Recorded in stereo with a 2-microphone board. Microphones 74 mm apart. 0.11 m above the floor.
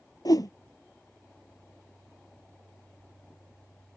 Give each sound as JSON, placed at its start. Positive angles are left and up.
{"t": 0.2, "sound": "a whoosh", "side_deg": 60}